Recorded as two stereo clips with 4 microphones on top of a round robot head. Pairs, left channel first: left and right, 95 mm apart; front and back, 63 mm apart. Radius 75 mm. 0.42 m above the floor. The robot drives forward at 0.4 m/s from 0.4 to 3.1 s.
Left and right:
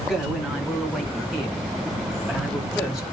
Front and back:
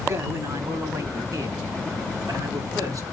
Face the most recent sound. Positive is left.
turn(degrees=-175)